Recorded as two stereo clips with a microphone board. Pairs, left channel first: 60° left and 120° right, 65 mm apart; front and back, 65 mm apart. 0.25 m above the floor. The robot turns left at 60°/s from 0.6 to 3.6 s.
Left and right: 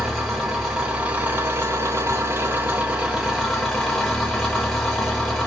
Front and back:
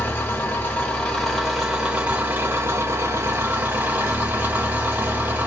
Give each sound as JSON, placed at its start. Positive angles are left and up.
{"t": 0.0, "sound": "an engine running", "azimuth_deg": -40, "distance_m": 1.3}